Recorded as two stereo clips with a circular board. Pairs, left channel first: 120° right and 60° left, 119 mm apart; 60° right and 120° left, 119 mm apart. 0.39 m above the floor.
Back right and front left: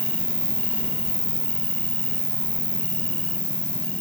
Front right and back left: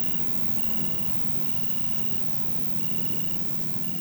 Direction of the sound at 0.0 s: 25° left.